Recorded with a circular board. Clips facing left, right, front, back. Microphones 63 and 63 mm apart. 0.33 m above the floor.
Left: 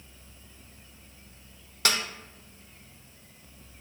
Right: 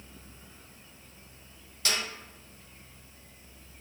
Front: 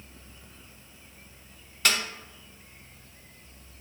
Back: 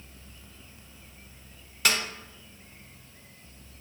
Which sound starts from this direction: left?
A snare drum, at 1.9 s.